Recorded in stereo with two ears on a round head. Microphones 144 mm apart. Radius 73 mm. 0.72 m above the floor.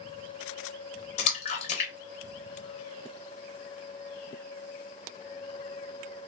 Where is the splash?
40° left (ahead or behind), 0.7 m.